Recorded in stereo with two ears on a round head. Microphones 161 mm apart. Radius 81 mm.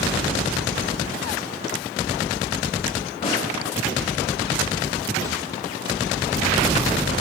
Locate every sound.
3.2 s a snare drum: 40° left (ahead or behind), 4 m